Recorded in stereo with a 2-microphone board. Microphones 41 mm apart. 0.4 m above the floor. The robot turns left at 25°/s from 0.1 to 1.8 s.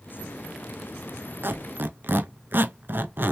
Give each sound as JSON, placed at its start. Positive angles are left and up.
{"t": 1.4, "sound": "a squeak", "side_deg": -60, "distance_m": 0.5}